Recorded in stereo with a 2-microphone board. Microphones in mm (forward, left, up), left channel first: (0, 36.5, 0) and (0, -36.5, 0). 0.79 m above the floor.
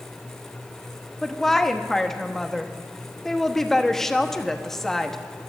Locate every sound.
1.2 s a woman speaking: 5° left (ahead or behind), 0.8 m